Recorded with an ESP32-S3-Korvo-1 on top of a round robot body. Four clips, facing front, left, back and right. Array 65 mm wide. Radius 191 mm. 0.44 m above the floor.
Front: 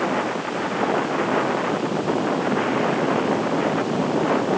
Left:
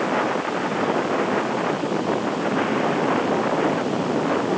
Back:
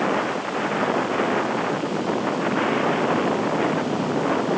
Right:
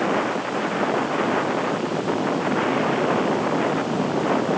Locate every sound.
Only background noise.